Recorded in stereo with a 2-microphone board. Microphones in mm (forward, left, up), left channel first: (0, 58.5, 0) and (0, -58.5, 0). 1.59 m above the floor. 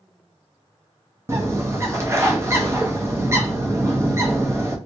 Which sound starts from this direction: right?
A bird, at 1.3 s.